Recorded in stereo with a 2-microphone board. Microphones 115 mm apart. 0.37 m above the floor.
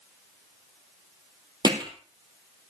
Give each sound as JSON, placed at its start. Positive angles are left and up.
{"t": 1.6, "sound": "hammering", "side_deg": -40, "distance_m": 2.5}